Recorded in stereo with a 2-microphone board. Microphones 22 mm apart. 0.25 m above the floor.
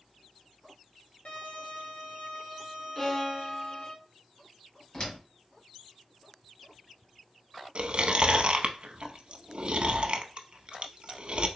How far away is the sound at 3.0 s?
About 1.6 m.